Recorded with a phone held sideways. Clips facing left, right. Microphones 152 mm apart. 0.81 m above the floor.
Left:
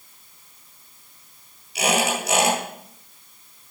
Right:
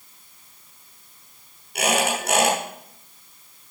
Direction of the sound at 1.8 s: 55° right (ahead or behind).